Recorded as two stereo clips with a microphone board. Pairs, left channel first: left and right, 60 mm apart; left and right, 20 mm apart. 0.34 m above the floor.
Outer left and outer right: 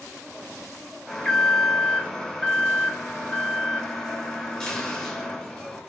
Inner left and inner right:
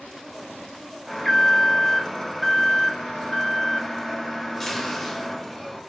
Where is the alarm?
10° left (ahead or behind), 0.6 m.